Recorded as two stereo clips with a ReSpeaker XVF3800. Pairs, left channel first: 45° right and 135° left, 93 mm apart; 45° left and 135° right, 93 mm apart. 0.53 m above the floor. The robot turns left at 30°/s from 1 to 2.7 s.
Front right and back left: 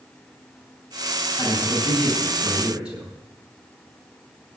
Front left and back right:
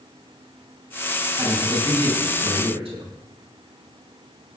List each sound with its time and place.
1.4 s a man speaking: 105° right, 7.5 m; by 3.1 s 145° right, 7.5 m